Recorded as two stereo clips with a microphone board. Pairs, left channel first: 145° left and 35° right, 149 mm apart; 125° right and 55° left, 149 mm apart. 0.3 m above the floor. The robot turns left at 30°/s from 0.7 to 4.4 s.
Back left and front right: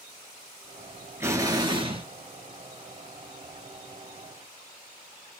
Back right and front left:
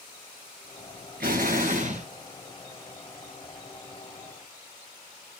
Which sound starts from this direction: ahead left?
An explosion, at 1.2 s.